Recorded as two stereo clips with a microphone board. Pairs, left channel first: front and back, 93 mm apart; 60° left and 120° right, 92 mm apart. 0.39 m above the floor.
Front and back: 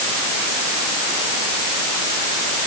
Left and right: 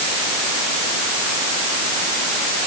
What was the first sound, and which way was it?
Only background noise.